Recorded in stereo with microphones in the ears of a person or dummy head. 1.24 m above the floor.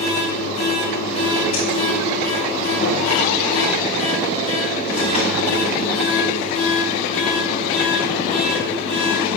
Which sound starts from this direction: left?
A machine running, at 0.0 s.